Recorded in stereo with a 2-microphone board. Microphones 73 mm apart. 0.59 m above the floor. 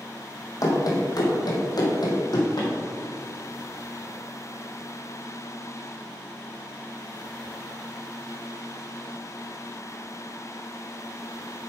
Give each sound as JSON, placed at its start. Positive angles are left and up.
{"t": 0.6, "sound": "running footsteps", "side_deg": 55, "distance_m": 1.6}